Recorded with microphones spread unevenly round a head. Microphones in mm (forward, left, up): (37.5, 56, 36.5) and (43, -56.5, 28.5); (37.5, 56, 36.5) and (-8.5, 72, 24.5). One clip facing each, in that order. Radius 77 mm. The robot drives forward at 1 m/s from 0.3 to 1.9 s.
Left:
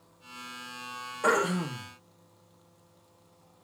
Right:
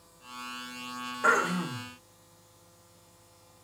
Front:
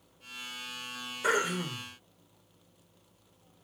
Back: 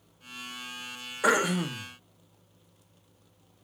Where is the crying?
I don't hear crying.